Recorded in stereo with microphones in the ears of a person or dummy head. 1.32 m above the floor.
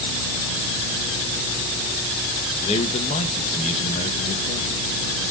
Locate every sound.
2.6 s a man speaking: 30° left (ahead or behind), 1.8 m